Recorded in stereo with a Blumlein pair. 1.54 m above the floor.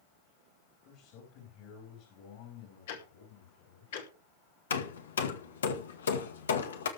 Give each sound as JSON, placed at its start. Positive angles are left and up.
{"t": 0.8, "sound": "a man speaking", "azimuth_deg": 45, "distance_m": 4.5}
{"t": 2.9, "sound": "ticking", "azimuth_deg": 55, "distance_m": 3.0}
{"t": 4.7, "sound": "hammering", "azimuth_deg": 65, "distance_m": 1.9}